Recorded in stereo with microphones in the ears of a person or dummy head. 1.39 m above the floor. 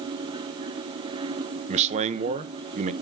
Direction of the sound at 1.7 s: 30° right (ahead or behind).